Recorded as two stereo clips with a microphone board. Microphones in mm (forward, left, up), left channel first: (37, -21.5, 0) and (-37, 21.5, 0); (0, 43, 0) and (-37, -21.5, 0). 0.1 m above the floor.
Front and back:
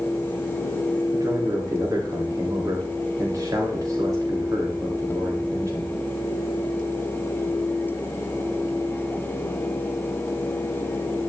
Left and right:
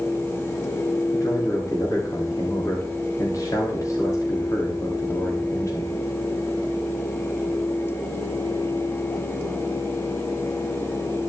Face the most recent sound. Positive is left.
turn(degrees=100)